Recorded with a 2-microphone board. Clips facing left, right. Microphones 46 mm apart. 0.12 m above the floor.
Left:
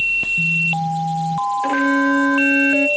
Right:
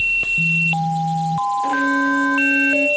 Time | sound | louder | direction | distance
1.6 | a violin | left 3 dB | 45° left (ahead or behind) | 1.2 m